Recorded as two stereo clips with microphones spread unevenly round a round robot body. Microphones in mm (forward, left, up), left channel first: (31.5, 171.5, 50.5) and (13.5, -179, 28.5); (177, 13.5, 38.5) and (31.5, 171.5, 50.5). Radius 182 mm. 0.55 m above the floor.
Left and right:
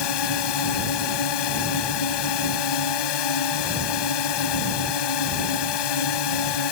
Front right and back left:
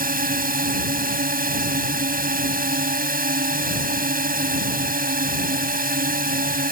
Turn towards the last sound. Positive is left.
turn(degrees=85)